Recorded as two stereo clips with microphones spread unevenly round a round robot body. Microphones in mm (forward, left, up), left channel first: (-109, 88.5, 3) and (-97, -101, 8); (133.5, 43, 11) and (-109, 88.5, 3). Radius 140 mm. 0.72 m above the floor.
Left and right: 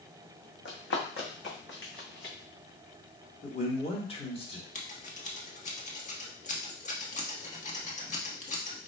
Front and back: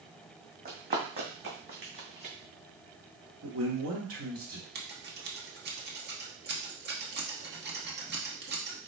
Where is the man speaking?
150° left, 1.7 m.